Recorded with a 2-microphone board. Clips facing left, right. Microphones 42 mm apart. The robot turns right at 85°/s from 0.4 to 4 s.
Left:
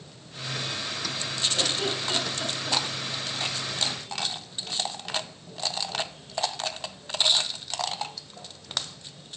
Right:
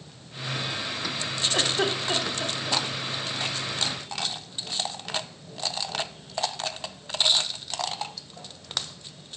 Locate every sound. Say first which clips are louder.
1.5 s a giggle: right 5 dB; 60° right (ahead or behind), 2.0 m; by 2.8 s 25° left (ahead or behind), 2.0 m